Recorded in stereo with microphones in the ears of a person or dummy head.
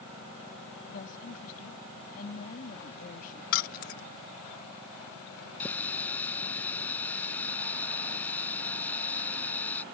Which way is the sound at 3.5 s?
45° left (ahead or behind).